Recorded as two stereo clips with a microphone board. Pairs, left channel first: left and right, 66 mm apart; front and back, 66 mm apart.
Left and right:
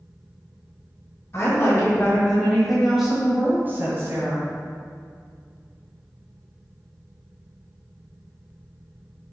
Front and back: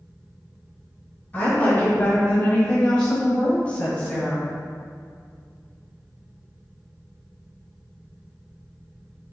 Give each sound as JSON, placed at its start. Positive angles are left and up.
{"t": 1.3, "sound": "a woman speaking", "azimuth_deg": 65, "distance_m": 1.9}